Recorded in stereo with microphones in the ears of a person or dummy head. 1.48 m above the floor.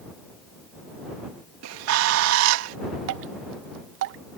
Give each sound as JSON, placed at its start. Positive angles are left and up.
{"t": 1.6, "sound": "a bird", "side_deg": -80}
{"t": 3.1, "sound": "dripping", "side_deg": -65}